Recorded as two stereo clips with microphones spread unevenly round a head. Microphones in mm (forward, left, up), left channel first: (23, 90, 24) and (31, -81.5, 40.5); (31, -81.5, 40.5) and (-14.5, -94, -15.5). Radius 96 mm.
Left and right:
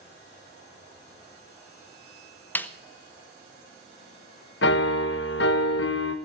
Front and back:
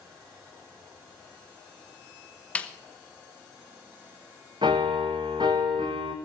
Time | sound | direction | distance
2.5 | a snare drum | 10° left | 0.9 m
4.6 | a piano | 130° left | 1.1 m